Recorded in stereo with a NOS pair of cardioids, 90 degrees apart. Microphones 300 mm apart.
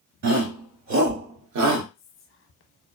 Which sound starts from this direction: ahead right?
A shout, at 0.2 s.